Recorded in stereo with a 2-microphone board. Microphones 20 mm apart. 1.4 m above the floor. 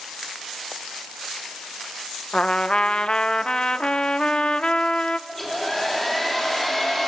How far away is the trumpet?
About 0.6 m.